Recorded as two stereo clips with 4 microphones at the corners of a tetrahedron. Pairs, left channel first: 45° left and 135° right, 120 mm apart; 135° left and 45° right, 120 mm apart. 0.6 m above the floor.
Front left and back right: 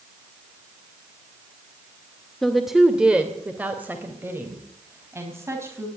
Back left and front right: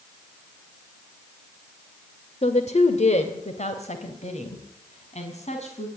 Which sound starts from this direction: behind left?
A woman speaking, at 2.4 s.